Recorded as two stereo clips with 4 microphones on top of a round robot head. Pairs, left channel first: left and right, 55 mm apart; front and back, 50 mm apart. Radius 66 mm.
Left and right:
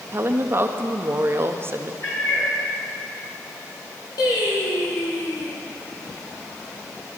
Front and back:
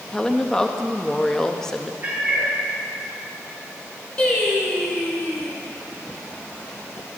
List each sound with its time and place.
0.1 s a woman speaking: 75° right, 0.9 m
2.0 s a cat meowing: 120° left, 4 m
4.2 s singing: 65° left, 2 m